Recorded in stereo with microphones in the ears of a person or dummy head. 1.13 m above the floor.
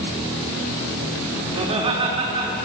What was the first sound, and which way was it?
Laughter, 30° right (ahead or behind).